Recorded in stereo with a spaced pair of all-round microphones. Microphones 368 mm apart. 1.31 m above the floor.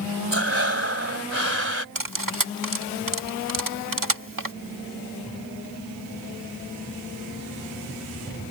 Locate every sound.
0.3 s breathing: 35° right (ahead or behind)
1.9 s cutlery clinking: 60° right (ahead or behind)